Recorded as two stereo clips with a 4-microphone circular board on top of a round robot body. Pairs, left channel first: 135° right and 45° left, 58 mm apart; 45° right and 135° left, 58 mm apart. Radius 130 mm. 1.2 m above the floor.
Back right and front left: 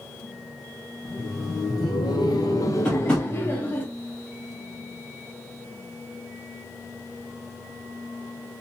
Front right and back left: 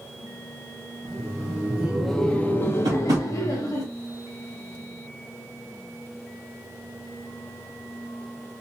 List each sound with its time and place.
1.1 s laughter: straight behind, 0.7 m; by 3.9 s 70° right, 1.0 m
2.9 s tapping: 150° left, 0.8 m